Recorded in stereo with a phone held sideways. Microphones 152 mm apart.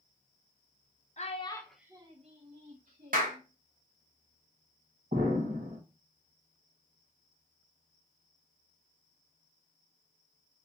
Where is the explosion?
60° right (ahead or behind), 1.7 m.